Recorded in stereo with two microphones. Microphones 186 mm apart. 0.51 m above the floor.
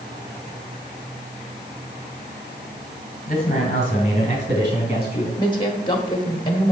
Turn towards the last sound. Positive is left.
turn(degrees=25)  # may be behind; listen again after turning